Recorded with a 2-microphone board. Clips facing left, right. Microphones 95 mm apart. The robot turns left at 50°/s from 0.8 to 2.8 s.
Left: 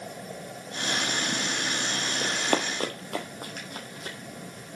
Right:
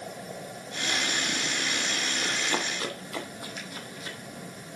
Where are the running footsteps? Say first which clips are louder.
Left 5 dB; 50° left (ahead or behind), 2 m.